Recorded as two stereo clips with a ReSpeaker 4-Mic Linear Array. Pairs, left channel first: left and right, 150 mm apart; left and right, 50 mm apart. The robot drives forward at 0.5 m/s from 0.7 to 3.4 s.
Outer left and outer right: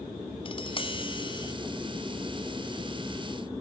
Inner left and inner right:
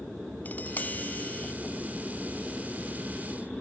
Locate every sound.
0.5 s tapping: 35° left (ahead or behind), 0.8 m; by 1.5 s 30° left (ahead or behind), 0.9 m